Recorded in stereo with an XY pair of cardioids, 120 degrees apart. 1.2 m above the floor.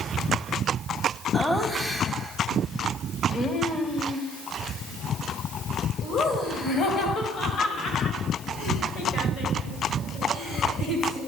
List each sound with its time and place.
1.3 s laughter: 5° left, 1.6 m; by 11.2 s 60° left, 6 m